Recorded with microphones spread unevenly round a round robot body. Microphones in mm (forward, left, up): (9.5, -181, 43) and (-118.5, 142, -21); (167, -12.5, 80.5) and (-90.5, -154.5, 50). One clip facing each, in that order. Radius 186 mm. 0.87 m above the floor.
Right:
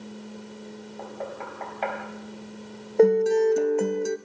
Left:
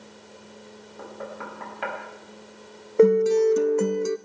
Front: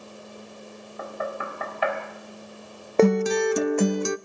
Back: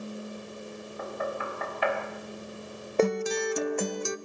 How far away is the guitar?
About 0.5 m.